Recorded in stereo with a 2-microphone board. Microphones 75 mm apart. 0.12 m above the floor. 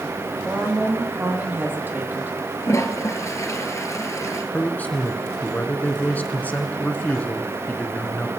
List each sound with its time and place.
0.5 s a woman speaking: 25° right (ahead or behind), 4 m
2.6 s a toilet flushing: 40° left (ahead or behind), 1.4 m
4.5 s a man speaking: 25° left (ahead or behind), 1.4 m